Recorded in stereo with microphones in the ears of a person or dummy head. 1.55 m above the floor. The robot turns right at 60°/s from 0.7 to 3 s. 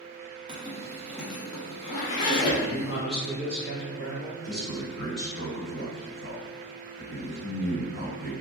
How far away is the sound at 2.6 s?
About 1.7 m.